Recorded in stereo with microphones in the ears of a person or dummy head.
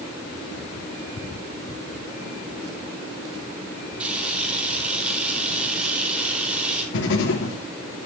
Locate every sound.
4.0 s a camera shutter: 10° right (ahead or behind), 5.5 m
6.9 s writing: 65° left (ahead or behind), 2.5 m